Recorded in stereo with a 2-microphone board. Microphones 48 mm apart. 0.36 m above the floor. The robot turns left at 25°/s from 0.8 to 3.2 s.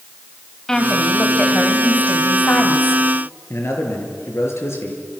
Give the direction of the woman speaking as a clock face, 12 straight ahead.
6 o'clock.